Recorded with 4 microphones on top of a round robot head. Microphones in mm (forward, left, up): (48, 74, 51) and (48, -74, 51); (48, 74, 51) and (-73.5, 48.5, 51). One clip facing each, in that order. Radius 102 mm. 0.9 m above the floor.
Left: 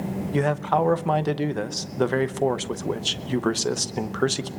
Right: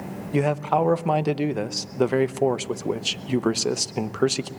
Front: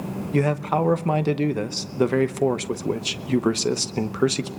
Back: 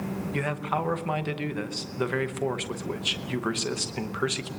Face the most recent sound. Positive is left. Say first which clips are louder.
# right 1 dB, front 9 dB
turn(degrees=-15)